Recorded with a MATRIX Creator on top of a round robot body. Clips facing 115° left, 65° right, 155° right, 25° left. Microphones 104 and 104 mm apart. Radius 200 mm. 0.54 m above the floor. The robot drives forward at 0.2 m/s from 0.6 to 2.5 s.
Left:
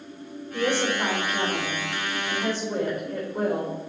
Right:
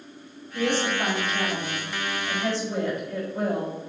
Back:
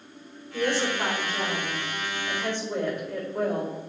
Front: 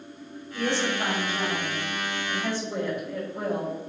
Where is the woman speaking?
155° left, 3.5 m; by 3.8 s 160° left, 3.5 m.